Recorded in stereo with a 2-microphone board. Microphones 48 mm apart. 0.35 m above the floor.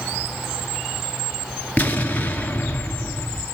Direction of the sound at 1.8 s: 30° left (ahead or behind).